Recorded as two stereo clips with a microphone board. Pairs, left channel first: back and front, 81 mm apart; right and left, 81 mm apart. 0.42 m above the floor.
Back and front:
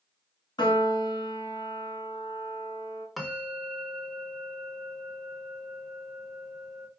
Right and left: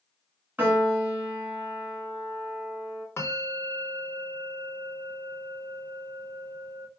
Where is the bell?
90° right, 0.9 m.